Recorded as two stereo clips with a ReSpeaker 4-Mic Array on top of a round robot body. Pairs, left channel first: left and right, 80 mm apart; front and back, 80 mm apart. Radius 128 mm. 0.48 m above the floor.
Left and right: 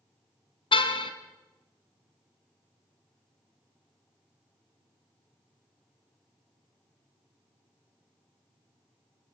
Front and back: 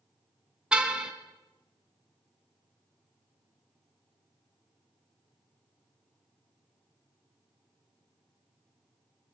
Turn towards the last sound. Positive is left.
turn(degrees=100)